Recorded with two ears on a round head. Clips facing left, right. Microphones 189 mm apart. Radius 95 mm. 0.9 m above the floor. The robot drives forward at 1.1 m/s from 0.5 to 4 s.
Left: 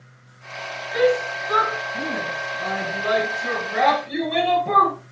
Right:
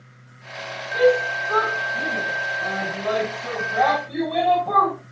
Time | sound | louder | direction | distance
0.9 | a shout | right 2 dB | 20° left (ahead or behind) | 8.5 m